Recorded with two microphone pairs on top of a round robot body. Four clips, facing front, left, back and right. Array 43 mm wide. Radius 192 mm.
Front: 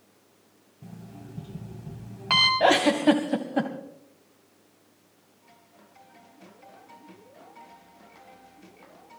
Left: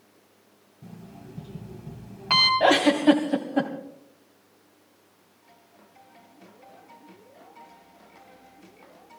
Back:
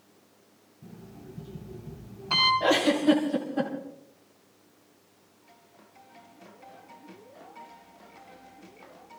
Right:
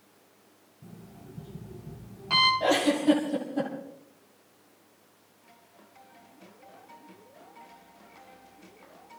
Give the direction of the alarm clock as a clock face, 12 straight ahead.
11 o'clock.